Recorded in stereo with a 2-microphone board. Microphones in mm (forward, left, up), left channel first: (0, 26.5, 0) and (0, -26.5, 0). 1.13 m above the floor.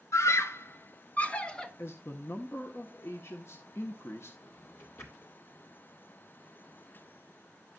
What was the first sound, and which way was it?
A scream, 70° left (ahead or behind).